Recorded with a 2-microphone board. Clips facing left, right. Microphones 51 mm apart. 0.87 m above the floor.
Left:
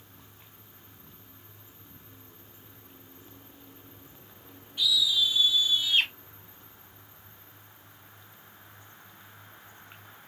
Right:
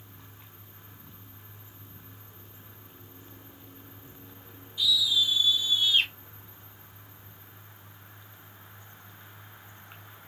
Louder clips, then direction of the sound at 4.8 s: Even; 60° left (ahead or behind).